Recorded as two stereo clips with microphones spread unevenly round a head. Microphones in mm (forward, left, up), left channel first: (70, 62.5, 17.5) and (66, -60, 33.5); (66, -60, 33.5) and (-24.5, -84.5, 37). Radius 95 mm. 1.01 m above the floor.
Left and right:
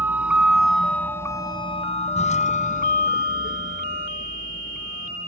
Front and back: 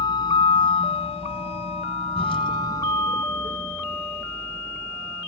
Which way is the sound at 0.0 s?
20° right.